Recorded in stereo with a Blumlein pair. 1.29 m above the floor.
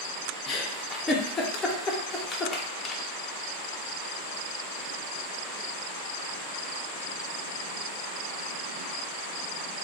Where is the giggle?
20° left, 0.6 m.